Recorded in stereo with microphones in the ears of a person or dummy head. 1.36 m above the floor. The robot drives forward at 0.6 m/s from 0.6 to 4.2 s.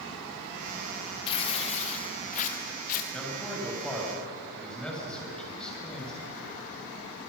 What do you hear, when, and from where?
1.3 s tearing paper: 35° left (ahead or behind), 2.5 m; by 3.0 s 50° left (ahead or behind), 2.0 m
3.1 s a man speaking: 5° left (ahead or behind), 7.5 m